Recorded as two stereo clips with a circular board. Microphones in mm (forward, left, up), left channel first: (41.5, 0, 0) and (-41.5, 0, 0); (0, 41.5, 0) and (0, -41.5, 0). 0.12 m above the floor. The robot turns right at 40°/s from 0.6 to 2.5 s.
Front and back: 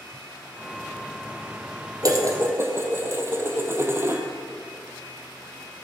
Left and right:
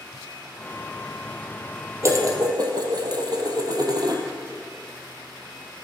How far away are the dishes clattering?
About 2 m.